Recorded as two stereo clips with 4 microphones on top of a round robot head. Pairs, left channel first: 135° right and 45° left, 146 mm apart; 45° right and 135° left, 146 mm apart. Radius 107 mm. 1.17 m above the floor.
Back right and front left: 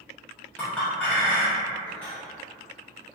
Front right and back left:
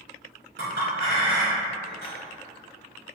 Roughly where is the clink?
Behind left.